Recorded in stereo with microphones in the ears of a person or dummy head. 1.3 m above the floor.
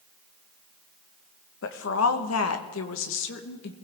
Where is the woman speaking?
65° left (ahead or behind), 1.7 m; by 3.7 s 55° left (ahead or behind), 1.8 m.